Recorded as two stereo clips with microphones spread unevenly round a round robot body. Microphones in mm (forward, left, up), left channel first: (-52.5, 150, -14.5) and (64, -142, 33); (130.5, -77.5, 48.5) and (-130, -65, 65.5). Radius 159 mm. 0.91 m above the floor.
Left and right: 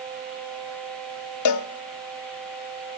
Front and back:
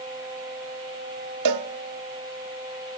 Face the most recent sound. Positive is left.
turn(degrees=150)